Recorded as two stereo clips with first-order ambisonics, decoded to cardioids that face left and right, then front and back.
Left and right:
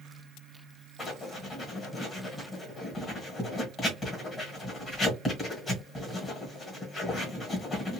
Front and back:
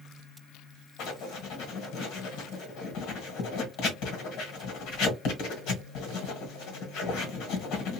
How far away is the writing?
About 1.3 m.